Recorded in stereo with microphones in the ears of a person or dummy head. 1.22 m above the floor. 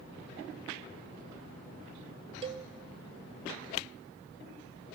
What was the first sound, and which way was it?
A cowbell, 30° right (ahead or behind).